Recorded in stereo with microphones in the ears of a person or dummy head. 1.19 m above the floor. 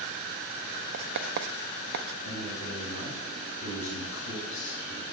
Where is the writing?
65° right (ahead or behind), 0.7 m.